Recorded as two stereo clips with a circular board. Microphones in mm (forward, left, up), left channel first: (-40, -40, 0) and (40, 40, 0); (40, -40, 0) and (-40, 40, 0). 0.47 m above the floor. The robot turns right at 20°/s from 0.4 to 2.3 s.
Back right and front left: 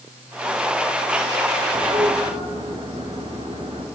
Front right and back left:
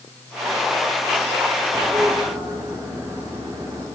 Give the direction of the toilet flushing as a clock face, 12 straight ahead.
10 o'clock.